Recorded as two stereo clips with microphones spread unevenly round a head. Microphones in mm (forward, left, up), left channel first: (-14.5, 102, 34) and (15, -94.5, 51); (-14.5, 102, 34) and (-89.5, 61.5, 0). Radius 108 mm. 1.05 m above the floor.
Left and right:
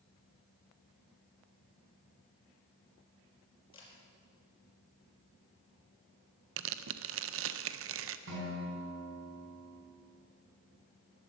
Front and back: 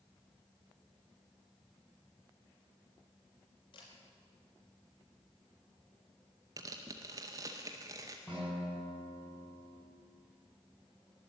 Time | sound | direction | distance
3.7 | a camera shutter | 30° left | 4.5 m
6.6 | tearing paper | 100° right | 0.7 m
8.3 | a guitar | 55° right | 5 m